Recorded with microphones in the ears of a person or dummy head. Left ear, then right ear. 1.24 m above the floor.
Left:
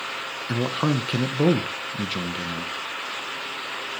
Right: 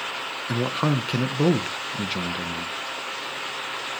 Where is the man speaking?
Centre (ahead or behind), 0.7 m.